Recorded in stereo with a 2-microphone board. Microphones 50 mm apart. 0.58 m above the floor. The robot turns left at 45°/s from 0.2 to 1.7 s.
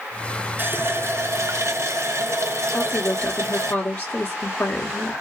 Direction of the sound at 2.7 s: 30° left (ahead or behind).